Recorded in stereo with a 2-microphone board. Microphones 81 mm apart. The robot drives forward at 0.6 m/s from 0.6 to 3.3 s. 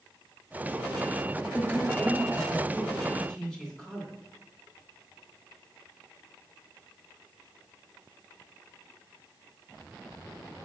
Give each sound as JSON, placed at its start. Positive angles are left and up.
{"t": 1.5, "sound": "a man speaking", "side_deg": 15, "distance_m": 1.1}